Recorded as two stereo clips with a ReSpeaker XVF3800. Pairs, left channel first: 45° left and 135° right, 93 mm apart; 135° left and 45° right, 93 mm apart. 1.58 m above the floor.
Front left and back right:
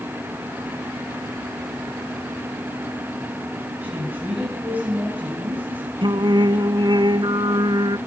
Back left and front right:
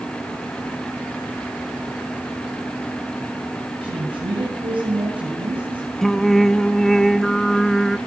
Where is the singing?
140° right, 1.1 m.